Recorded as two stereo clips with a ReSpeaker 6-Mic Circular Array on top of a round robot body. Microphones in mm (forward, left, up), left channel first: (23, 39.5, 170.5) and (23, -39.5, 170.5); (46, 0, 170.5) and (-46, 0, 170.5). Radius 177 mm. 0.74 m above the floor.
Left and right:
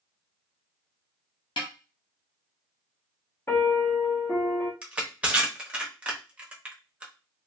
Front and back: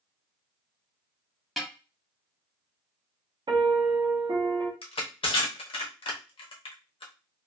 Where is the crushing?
15° right, 0.8 m.